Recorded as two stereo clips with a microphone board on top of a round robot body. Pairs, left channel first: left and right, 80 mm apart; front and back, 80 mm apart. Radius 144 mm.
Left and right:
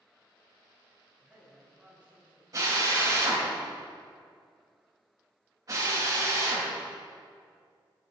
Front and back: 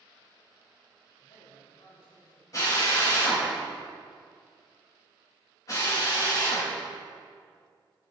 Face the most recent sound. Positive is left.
turn(degrees=-45)